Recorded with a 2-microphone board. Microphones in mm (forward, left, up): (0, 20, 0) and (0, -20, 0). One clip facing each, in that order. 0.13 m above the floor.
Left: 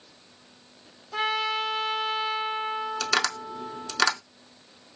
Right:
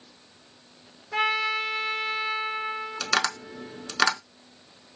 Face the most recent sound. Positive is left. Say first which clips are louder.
# right 2 dB
turn(degrees=-10)  # may be behind; listen again after turning